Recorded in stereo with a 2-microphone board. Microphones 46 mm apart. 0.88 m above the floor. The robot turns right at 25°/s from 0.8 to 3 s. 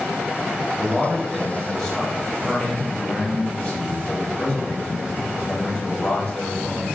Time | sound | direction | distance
0.7 | a man speaking | 20° right | 0.8 m